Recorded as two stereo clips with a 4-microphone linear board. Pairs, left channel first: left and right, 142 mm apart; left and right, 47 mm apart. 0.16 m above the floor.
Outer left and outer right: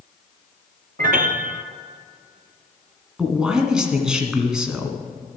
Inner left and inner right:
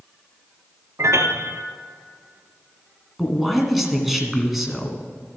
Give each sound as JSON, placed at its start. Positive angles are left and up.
{"t": 1.0, "sound": "a piano", "side_deg": -75, "distance_m": 0.8}
{"t": 3.2, "sound": "a man speaking", "side_deg": -5, "distance_m": 1.9}